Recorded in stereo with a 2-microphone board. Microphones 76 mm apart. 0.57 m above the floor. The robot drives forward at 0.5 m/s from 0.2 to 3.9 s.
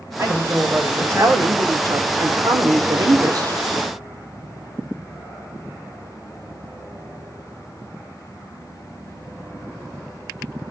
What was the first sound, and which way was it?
A woman speaking, 35° right (ahead or behind).